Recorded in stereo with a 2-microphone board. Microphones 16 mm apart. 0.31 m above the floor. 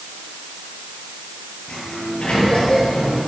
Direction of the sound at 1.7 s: 80° left.